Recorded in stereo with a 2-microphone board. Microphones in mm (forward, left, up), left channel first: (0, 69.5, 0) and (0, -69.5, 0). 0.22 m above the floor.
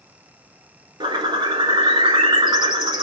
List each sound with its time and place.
1.0 s a bird: 35° right (ahead or behind), 0.9 m